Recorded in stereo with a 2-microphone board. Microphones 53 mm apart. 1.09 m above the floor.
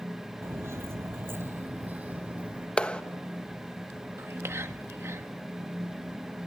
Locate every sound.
0.4 s footsteps: 45° right (ahead or behind), 1.6 m; by 2.7 s 20° right (ahead or behind), 3 m
2.8 s a clap: 20° left (ahead or behind), 1.1 m
4.2 s whispering: 50° right (ahead or behind), 1.8 m